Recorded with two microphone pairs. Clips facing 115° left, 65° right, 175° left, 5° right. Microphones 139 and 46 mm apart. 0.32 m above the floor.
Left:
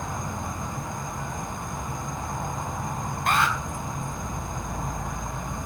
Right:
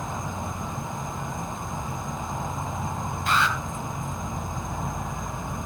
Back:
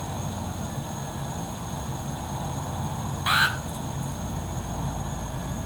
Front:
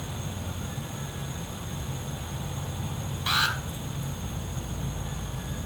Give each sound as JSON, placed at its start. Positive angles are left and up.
{"t": 0.0, "sound": "an insect", "azimuth_deg": -150, "distance_m": 2.0}
{"t": 3.3, "sound": "an alarm", "azimuth_deg": 110, "distance_m": 3.5}